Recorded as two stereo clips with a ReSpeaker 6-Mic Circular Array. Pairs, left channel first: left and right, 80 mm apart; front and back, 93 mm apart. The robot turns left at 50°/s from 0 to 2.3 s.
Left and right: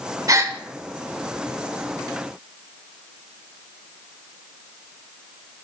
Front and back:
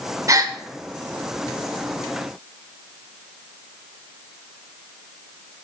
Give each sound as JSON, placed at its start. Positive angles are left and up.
{"t": 0.3, "sound": "a gasp", "azimuth_deg": -130, "distance_m": 1.0}